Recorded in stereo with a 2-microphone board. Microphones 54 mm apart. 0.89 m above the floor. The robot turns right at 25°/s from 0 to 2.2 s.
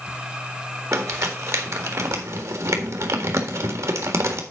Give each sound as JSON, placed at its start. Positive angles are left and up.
{"t": 0.9, "sound": "crumpling", "side_deg": -60, "distance_m": 1.7}